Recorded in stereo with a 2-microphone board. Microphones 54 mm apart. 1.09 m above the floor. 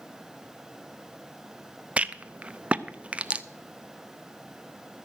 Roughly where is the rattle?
Right.